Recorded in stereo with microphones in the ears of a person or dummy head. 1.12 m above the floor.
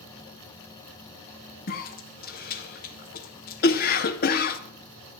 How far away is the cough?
About 0.6 m.